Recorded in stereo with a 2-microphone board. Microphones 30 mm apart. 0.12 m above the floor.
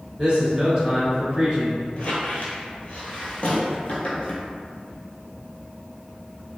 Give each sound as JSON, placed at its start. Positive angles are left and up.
{"t": 0.2, "sound": "a man speaking", "side_deg": -20, "distance_m": 1.3}
{"t": 2.0, "sound": "a squeak", "side_deg": 55, "distance_m": 0.8}